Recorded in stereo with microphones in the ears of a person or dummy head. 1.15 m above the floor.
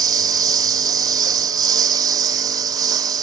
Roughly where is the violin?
No violin in this recording.